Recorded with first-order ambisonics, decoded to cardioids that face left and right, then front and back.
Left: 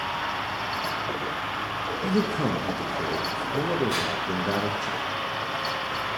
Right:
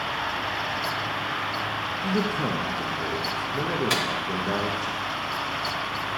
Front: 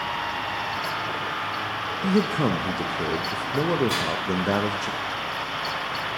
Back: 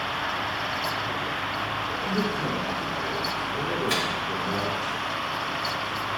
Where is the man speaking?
10° left, 0.5 m.